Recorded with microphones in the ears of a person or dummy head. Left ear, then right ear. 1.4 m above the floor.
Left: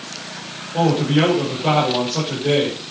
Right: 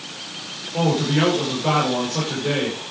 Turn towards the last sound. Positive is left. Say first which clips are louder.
# left 3 dB
turn(degrees=0)  # may be behind; listen again after turning